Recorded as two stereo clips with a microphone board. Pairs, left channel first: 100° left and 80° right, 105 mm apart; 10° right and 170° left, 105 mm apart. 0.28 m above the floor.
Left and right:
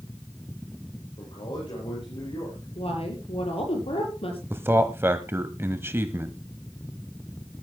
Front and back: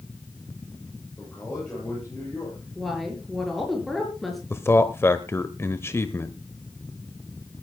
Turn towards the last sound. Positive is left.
turn(degrees=-45)